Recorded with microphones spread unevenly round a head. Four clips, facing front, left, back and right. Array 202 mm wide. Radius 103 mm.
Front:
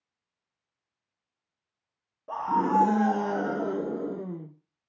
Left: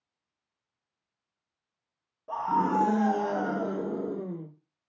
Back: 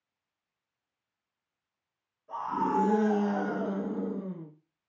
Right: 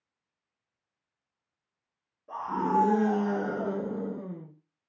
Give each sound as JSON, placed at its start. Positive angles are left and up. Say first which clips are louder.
{"t": 2.3, "sound": "a scream", "louder": "left 2 dB, front 5 dB", "azimuth_deg": 40, "distance_m": 0.9}